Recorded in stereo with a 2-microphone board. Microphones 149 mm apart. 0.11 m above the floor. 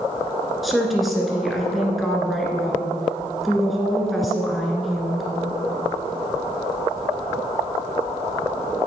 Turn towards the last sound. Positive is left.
turn(degrees=0)  # may be behind; listen again after turning